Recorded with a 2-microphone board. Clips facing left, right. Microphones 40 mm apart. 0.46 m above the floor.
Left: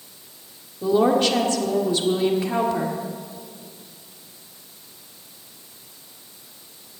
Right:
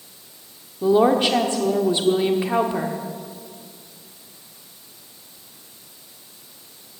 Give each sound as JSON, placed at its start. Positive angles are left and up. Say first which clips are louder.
{"t": 0.8, "sound": "a woman speaking", "louder": "right 2 dB", "side_deg": -20, "distance_m": 1.1}